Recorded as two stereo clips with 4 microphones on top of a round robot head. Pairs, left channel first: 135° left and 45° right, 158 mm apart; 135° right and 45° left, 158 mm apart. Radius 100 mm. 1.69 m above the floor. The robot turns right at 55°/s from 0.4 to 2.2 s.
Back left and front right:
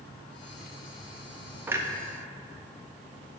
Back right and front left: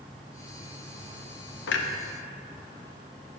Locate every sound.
1.7 s a clunk: 120° right, 0.7 m; by 1.9 s 110° right, 0.7 m